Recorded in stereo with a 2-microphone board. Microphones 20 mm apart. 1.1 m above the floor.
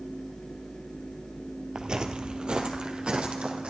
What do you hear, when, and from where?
1.8 s footsteps: 35° right (ahead or behind), 1.4 m; by 3.7 s 55° right (ahead or behind), 3 m